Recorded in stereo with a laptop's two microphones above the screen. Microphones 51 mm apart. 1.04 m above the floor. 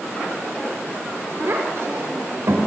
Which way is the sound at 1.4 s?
60° right (ahead or behind).